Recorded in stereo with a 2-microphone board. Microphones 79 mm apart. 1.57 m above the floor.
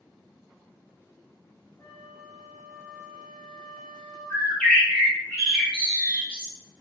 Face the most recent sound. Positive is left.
turn(degrees=10)  # may be behind; listen again after turning